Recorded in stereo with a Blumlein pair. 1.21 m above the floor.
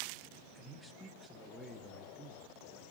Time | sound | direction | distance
0.6 | a man speaking | straight ahead | 1.9 m